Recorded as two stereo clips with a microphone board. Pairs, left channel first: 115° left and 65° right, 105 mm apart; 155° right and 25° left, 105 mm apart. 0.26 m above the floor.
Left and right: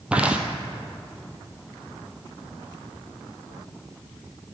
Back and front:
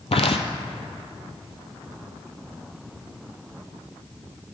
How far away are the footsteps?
About 0.5 m.